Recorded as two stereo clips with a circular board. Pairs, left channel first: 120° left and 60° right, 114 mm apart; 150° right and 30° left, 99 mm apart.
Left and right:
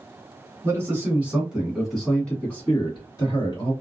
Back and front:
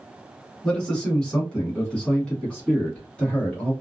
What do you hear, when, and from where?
0.6 s a man speaking: 80° right, 1.4 m; by 3.7 s 135° left, 1.7 m